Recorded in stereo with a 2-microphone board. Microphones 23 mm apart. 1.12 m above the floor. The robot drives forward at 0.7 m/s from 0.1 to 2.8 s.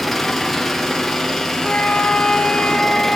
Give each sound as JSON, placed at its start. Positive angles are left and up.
{"t": 0.0, "sound": "an engine running", "side_deg": 5, "distance_m": 1.4}
{"t": 1.6, "sound": "a flute", "side_deg": 70, "distance_m": 1.1}